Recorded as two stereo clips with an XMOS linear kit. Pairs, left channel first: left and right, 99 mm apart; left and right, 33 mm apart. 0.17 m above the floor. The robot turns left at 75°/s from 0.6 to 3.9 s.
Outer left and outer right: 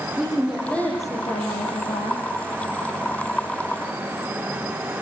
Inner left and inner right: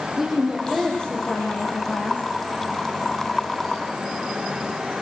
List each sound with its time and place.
0.2 s a woman speaking: straight behind, 8.5 m; by 2.2 s 60° left, 8.5 m